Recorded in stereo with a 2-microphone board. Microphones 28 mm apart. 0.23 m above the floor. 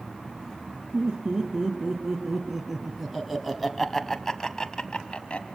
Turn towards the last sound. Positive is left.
turn(degrees=40)  # may be behind; listen again after turning